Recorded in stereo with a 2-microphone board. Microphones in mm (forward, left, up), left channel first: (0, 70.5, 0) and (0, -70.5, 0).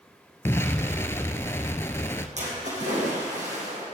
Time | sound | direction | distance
0.5 | an explosion | 20° left (ahead or behind) | 0.6 m
2.4 | a splash | 55° right (ahead or behind) | 4.5 m